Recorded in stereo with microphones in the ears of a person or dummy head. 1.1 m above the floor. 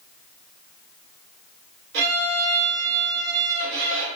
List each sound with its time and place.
1.9 s a violin: 65° right (ahead or behind), 1.4 m